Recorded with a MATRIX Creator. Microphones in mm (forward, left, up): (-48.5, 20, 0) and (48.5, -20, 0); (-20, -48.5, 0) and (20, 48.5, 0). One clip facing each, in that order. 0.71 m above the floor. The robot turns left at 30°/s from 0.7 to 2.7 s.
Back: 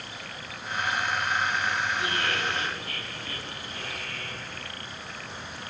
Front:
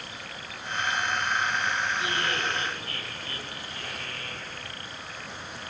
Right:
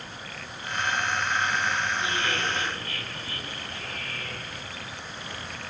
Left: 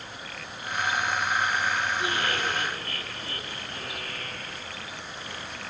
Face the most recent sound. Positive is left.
turn(degrees=25)